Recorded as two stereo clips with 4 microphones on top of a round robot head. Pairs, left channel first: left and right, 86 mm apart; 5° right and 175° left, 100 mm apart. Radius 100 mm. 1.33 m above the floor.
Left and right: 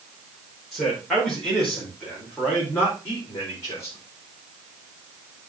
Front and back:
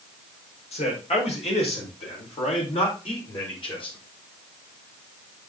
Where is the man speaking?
Straight ahead, 4.5 m; by 4.0 s 30° left, 4 m.